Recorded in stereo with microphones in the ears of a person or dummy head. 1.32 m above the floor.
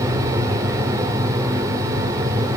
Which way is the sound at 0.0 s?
20° right (ahead or behind).